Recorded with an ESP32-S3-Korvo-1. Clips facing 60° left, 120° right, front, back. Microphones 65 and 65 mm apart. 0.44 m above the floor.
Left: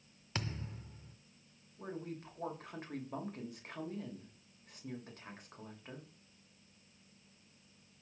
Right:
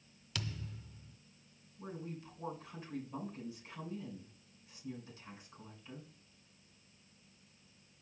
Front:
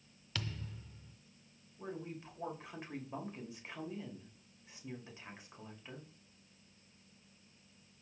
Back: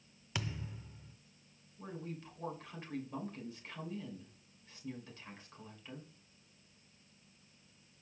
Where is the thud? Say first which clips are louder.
Left 2 dB, back 2 dB; 110° left, 0.5 m.